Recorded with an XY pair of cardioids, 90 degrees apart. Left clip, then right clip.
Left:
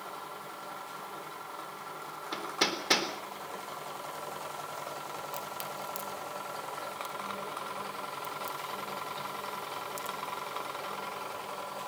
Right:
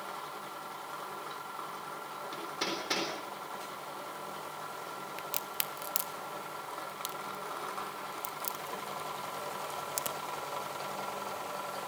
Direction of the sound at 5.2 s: 70° right.